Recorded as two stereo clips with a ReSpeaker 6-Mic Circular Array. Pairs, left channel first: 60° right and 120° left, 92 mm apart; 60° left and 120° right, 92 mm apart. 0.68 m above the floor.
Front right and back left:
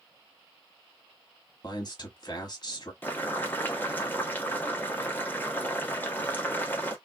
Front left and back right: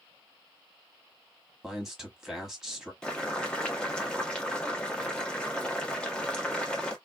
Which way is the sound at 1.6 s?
35° right.